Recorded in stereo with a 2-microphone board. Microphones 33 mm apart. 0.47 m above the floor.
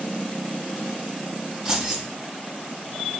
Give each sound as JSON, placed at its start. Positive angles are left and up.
{"t": 1.6, "sound": "keys jangling", "side_deg": -15, "distance_m": 2.5}